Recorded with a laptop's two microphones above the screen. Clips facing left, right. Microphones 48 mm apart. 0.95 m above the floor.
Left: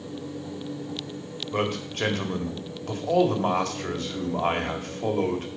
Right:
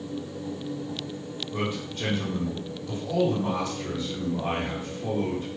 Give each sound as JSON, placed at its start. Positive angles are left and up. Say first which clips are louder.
{"t": 1.5, "sound": "a man speaking", "louder": "left 4 dB", "side_deg": 60, "distance_m": 1.8}